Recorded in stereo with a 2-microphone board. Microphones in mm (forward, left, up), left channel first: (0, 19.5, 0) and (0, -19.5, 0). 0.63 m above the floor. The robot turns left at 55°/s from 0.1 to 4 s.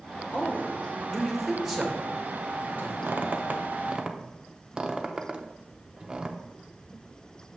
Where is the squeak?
65° right (ahead or behind), 0.6 m; by 6.4 s 25° right (ahead or behind), 0.6 m.